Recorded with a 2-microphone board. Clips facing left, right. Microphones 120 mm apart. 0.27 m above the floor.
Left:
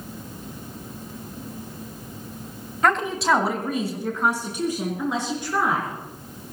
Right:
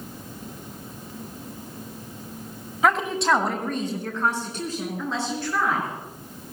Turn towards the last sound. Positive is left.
turn(degrees=15)  # may be behind; listen again after turning